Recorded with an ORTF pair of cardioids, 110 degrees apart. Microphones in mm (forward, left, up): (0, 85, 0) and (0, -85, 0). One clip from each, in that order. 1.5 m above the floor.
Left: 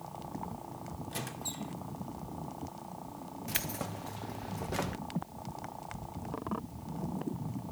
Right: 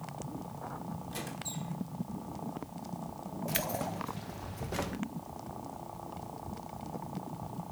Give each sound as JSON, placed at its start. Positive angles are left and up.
{"t": 1.1, "sound": "a squeak", "azimuth_deg": 15, "distance_m": 2.5}
{"t": 3.5, "sound": "keys jangling", "azimuth_deg": 5, "distance_m": 1.1}